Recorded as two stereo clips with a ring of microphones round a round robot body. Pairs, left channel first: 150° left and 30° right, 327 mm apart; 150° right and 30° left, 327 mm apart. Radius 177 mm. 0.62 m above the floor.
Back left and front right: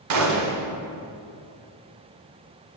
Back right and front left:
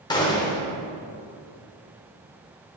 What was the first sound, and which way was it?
A gunshot, 70° right.